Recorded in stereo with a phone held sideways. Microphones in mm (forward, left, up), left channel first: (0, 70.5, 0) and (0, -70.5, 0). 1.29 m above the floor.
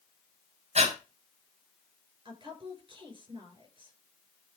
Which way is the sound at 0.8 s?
50° right (ahead or behind).